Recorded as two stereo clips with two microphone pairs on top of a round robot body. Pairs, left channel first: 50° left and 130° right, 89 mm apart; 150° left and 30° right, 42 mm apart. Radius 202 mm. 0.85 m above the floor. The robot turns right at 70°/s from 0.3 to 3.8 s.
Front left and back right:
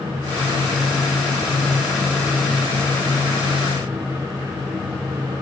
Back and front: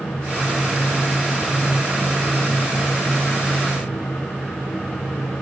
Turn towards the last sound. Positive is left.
No sound to turn to.